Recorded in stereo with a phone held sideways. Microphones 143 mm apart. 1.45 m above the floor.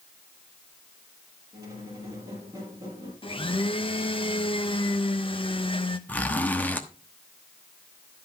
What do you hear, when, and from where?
1.5 s a squeak: 20° right (ahead or behind), 4 m
3.2 s a blender: 40° left (ahead or behind), 0.8 m
6.1 s a zipper: 10° left (ahead or behind), 1.0 m